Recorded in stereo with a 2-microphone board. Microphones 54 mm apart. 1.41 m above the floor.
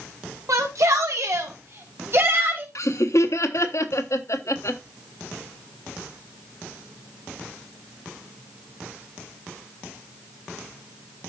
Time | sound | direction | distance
0.5 | a shout | 80° right | 2.5 m
2.8 | laughter | 65° left (ahead or behind) | 1.2 m